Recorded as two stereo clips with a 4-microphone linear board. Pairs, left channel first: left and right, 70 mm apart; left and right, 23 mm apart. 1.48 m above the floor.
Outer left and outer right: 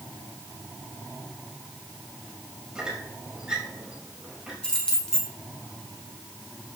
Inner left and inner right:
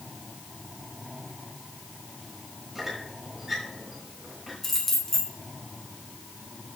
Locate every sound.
2.8 s a squeak: 10° right (ahead or behind), 4.5 m
4.6 s keys jangling: 10° left (ahead or behind), 3 m